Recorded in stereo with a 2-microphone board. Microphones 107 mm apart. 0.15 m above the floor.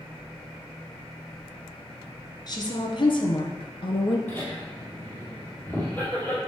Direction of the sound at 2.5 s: 40° left (ahead or behind).